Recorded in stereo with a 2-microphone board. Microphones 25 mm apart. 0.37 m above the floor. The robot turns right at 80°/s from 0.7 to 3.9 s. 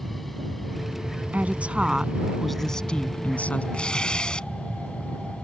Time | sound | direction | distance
0.0 | an aircraft | 5° left (ahead or behind) | ?
1.3 | a woman speaking | 85° right | ?
3.7 | tearing paper | 50° left (ahead or behind) | ?